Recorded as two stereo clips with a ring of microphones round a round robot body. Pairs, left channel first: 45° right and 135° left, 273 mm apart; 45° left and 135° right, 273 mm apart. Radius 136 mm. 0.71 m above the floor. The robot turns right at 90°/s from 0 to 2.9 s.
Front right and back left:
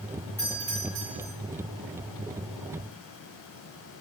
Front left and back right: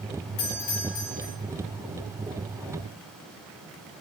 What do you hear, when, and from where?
0.4 s a doorbell: 40° left, 4 m; by 1.3 s 125° left, 4 m